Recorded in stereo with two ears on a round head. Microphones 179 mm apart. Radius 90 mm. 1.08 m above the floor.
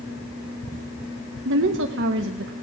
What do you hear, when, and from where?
1.4 s a woman speaking: 60° right (ahead or behind), 0.9 m